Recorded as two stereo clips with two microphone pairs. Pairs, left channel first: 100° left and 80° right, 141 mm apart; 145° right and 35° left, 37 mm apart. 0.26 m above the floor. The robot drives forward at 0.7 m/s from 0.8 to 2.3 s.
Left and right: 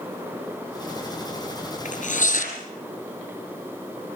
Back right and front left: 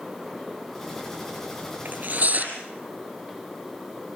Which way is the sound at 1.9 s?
75° left.